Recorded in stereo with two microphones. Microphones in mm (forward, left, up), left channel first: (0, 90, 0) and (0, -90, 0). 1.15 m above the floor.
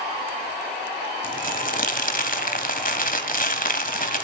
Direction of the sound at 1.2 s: 55° left (ahead or behind).